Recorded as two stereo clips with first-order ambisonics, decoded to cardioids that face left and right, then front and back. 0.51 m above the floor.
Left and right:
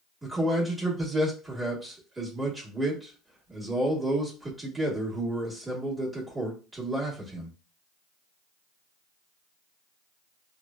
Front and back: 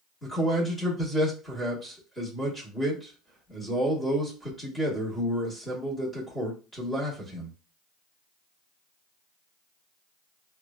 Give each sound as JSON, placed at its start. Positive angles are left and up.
{"t": 0.2, "sound": "a man speaking", "azimuth_deg": -40, "distance_m": 1.1}